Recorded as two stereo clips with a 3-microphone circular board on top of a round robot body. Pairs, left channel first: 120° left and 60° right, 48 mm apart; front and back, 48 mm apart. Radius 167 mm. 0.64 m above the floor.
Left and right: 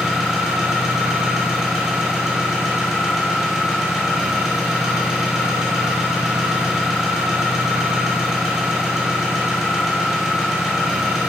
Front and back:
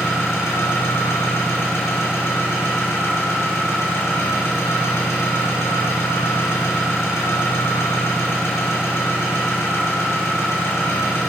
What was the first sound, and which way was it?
An engine running, 20° left.